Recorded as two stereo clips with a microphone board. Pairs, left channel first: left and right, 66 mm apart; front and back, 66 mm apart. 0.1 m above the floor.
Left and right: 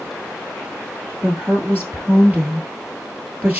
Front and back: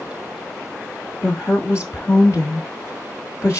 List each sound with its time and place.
1.2 s a woman speaking: 30° right, 1.6 m